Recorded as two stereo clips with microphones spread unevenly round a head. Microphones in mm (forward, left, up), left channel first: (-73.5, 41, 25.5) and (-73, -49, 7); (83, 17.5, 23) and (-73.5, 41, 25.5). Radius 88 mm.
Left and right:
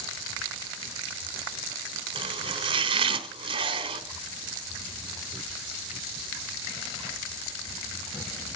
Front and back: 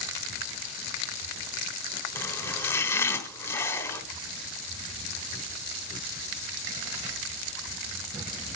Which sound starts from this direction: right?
Chopping, at 2.1 s.